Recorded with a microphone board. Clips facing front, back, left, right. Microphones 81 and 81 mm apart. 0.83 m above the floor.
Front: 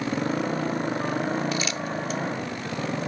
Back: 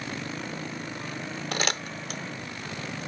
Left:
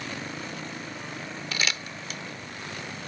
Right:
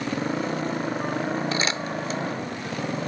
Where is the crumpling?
150° right.